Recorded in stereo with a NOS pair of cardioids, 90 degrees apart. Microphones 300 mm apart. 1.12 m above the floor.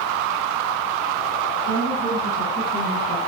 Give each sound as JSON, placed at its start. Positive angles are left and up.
{"t": 1.6, "sound": "a woman speaking", "azimuth_deg": -50, "distance_m": 8.5}